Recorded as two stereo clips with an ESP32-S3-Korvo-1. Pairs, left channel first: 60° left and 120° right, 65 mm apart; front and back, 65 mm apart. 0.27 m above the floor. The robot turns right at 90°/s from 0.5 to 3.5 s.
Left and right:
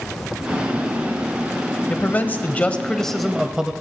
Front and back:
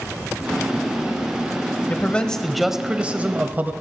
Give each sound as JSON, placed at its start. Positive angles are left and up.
{"t": 1.9, "sound": "a man speaking", "azimuth_deg": 30, "distance_m": 1.0}